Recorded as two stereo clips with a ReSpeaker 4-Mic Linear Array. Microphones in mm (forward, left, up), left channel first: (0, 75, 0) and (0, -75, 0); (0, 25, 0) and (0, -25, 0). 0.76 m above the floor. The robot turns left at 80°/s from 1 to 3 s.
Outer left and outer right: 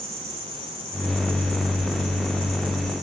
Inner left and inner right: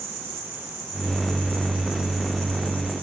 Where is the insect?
80° right, 4.5 m; by 3.0 s 120° left, 4.5 m.